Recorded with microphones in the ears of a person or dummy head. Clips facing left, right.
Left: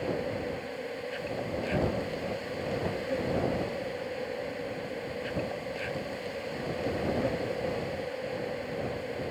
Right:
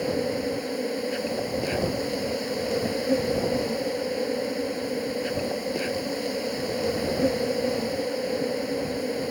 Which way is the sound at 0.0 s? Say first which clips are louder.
Right 6 dB; 65° right (ahead or behind).